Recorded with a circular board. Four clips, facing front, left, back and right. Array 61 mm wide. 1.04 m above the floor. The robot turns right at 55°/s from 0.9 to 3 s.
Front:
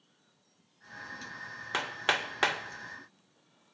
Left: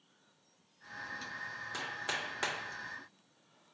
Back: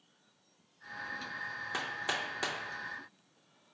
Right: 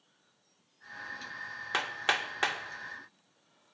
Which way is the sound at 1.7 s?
60° right.